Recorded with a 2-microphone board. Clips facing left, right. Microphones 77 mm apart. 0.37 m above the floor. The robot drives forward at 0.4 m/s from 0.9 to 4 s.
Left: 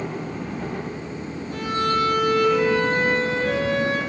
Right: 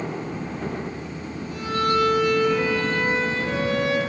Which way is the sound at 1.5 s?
50° left (ahead or behind).